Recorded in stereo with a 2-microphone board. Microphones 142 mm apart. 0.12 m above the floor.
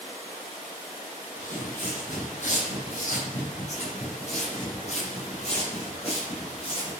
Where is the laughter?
I don't hear laughter.